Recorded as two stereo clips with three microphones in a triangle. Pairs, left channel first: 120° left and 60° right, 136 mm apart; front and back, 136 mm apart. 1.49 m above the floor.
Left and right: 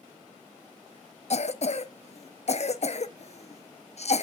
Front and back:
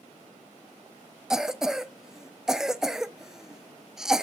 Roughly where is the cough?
Left.